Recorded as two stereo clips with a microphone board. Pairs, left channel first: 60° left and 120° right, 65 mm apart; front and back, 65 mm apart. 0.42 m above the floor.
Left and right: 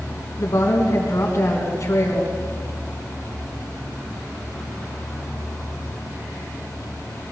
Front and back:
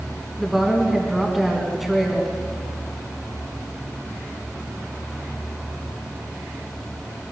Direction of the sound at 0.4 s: 95° left.